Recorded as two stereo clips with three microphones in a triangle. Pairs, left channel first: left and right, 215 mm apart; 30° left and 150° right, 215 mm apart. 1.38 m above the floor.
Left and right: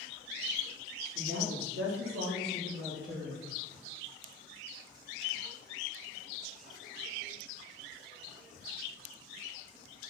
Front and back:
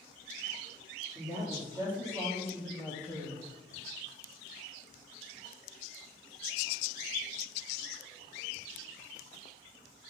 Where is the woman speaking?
85° right, 2.5 m; by 3.4 s 45° right, 1.4 m.